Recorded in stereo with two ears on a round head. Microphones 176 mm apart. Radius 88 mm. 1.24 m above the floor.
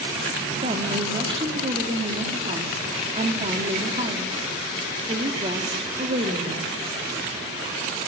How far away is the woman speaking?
About 2.5 m.